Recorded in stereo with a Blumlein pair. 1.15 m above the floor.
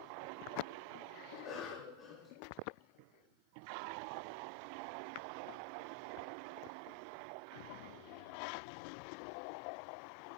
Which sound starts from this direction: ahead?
A cough, at 1.3 s.